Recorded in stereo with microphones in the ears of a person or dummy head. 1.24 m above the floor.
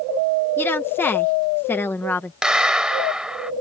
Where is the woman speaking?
10° left (ahead or behind).